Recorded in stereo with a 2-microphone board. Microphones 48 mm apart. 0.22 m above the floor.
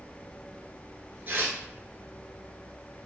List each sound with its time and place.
1.3 s tearing paper: 45° right (ahead or behind), 0.7 m